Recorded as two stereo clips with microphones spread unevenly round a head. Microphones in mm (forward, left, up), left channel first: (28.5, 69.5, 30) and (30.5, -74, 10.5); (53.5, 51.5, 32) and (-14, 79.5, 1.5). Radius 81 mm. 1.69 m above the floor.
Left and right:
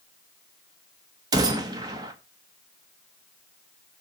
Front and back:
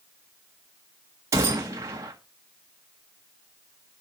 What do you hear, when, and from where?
1.3 s a gunshot: 135° right, 1.0 m